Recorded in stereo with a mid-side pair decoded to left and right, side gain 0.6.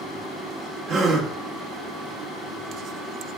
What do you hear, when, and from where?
0.9 s a gasp: 60° right, 1.0 m